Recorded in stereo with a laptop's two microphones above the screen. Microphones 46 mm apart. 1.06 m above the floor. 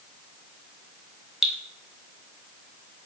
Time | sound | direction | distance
1.4 | dripping | 10° right (ahead or behind) | 0.6 m